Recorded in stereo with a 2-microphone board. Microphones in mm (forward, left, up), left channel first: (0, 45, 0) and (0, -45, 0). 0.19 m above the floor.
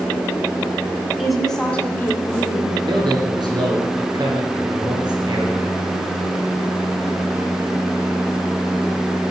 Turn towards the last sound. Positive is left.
turn(degrees=-55)  # may be behind; listen again after turning